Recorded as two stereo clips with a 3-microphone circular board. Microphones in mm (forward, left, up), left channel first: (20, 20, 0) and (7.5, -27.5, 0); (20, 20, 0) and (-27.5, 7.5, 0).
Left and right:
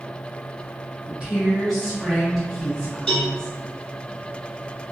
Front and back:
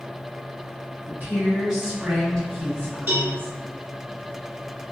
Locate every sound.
1.1 s a woman speaking: 165° right, 1.2 m; by 3.6 s 20° left, 1.5 m
3.1 s a cowbell: 150° left, 1.0 m